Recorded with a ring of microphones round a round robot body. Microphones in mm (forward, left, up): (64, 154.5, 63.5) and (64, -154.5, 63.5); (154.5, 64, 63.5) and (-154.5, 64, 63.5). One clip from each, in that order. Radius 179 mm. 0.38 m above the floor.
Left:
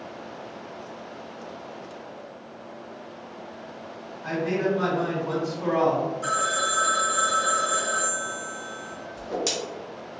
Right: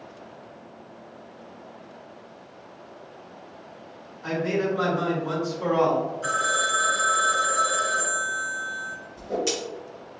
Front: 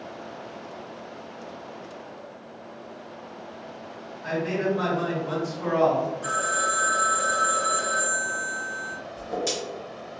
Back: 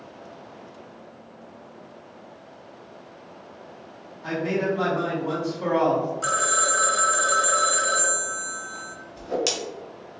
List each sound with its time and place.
4.2 s a man speaking: 135° right, 1.7 m
6.2 s a phone ringing: 165° left, 1.3 m
9.2 s a whoosh: 150° left, 1.9 m